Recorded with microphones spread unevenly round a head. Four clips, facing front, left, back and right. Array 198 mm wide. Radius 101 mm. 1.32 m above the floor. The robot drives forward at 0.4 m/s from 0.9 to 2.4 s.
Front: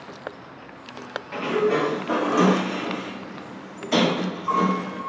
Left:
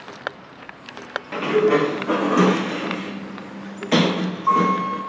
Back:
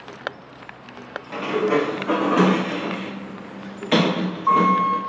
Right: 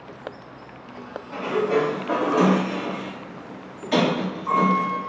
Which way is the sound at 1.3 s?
95° left.